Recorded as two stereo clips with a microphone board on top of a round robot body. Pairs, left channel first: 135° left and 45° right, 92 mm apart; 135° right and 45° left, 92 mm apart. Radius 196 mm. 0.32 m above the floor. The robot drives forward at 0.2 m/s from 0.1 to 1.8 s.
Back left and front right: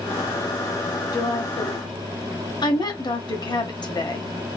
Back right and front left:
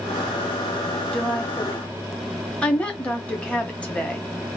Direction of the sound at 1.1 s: 145° left.